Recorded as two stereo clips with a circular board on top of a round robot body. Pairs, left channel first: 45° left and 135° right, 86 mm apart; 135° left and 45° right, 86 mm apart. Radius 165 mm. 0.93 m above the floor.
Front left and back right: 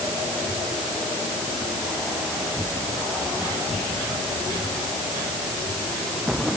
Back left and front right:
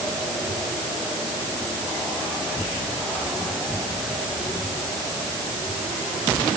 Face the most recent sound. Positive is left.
No sound to turn to.